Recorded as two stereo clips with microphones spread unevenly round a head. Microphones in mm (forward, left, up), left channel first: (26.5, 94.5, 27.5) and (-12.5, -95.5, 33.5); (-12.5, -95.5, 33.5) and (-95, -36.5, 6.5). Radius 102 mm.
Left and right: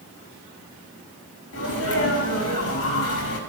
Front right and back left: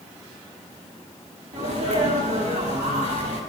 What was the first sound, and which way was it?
A sneeze, 95° left.